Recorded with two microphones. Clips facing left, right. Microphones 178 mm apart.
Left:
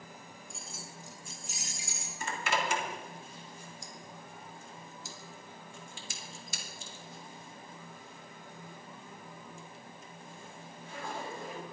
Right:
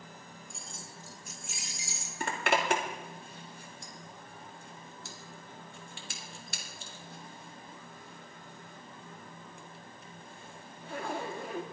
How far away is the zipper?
About 1.9 m.